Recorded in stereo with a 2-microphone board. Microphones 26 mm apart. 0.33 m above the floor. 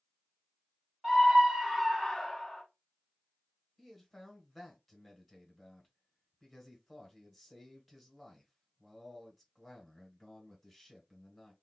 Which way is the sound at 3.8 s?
Centre (ahead or behind).